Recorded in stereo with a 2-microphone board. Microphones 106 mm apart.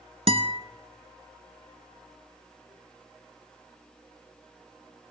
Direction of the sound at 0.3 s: 70° right (ahead or behind).